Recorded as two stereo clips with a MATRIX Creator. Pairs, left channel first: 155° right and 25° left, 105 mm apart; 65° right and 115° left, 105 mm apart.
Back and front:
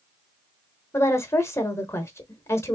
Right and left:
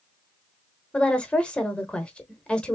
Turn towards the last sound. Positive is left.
turn(degrees=-135)